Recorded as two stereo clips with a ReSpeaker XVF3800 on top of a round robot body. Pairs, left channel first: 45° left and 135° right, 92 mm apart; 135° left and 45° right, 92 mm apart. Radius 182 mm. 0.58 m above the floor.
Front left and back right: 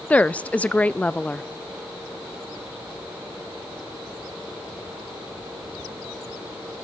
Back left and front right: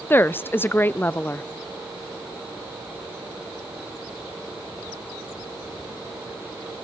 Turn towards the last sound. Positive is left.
turn(degrees=100)